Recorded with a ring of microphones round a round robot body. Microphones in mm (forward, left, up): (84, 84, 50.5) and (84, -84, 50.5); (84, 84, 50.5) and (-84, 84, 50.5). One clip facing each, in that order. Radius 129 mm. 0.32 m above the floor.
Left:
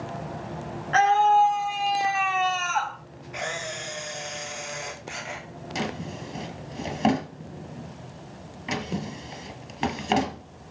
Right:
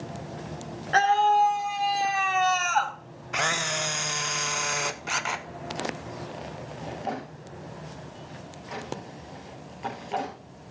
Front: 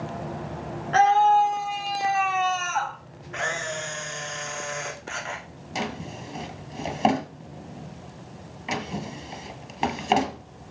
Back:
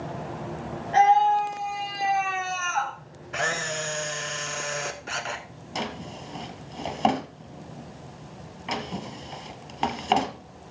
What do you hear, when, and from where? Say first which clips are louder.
0.9 s a scream: left 2 dB, front 1 dB; 40° right, 3.5 m; by 3.0 s 65° right, 1.8 m
3.3 s a camera shutter: right 3 dB, back 1 dB; 115° right, 0.5 m
5.8 s a drawer: left 4 dB, front 2 dB; 80° left, 1.9 m